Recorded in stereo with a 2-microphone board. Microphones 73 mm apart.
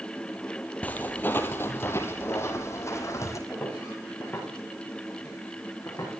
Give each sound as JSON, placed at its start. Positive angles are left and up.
{"t": 0.8, "sound": "footsteps", "side_deg": 20, "distance_m": 1.4}
{"t": 3.5, "sound": "footsteps", "side_deg": 20, "distance_m": 9.0}